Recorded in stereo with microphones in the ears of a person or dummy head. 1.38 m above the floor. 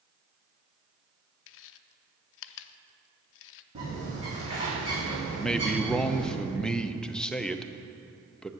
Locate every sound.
1.5 s chewing: 70° left (ahead or behind), 0.5 m
3.8 s a bird: 35° right (ahead or behind), 3.5 m
5.3 s a man speaking: 5° left (ahead or behind), 0.7 m